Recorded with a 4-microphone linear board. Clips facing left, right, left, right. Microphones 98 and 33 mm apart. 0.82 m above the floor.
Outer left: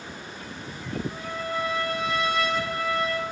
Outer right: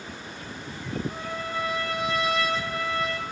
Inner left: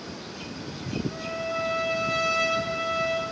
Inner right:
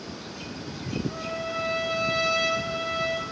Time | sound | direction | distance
1.1 | a trumpet | 30° right (ahead or behind) | 1.7 m